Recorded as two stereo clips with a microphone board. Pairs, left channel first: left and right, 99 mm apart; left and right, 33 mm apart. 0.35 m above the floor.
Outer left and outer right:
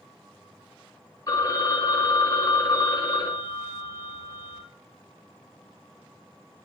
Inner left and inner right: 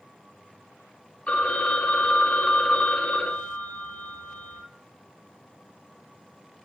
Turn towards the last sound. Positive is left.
turn(degrees=35)  # may be behind; listen again after turning